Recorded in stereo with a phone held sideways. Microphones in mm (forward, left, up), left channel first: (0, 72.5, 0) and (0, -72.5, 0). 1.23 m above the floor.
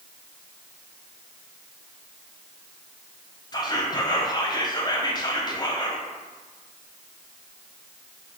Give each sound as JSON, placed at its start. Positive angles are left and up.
{"t": 3.5, "sound": "whispering", "side_deg": 30, "distance_m": 0.6}